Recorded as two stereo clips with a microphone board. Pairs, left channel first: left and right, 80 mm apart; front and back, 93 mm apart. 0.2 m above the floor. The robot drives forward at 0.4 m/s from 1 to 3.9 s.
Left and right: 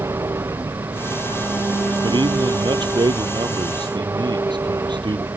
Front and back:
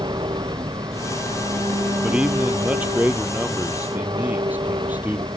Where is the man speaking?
100° right; by 5.3 s 110° right.